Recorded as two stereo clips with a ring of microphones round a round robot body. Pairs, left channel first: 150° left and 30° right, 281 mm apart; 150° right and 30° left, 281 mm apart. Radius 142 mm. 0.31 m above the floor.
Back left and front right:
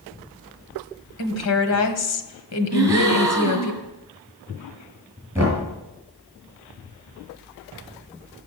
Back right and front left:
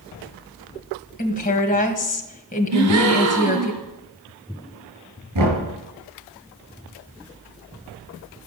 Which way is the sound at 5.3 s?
50° left.